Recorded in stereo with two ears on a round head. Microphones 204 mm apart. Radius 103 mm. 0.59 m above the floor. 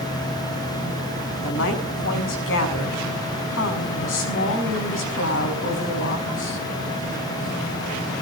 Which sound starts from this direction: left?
A woman speaking, at 1.4 s.